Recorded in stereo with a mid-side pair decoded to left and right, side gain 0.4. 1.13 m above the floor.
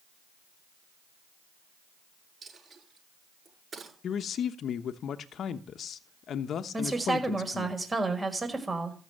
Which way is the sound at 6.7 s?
25° right.